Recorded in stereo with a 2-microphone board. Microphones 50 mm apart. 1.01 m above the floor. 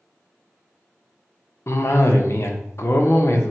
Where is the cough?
65° left (ahead or behind), 0.6 m.